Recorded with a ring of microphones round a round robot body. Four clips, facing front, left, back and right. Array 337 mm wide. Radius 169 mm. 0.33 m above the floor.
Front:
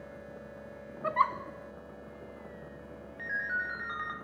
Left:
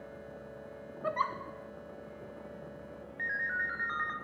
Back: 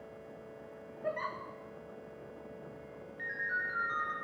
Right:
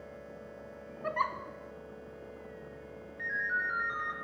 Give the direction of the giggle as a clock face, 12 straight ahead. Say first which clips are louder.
Even, front 9 dB; 12 o'clock.